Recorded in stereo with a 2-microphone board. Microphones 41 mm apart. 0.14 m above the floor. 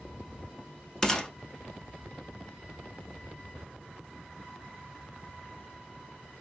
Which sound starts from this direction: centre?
A gunshot, at 1.0 s.